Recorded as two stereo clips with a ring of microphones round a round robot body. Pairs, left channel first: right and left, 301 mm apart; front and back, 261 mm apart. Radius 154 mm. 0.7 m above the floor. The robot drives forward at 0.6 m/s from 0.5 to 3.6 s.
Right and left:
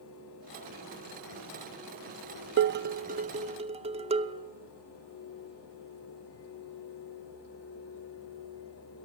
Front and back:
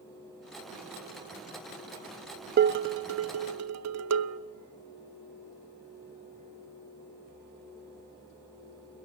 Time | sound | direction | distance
2.6 | dishes clattering | 135° left | 0.6 m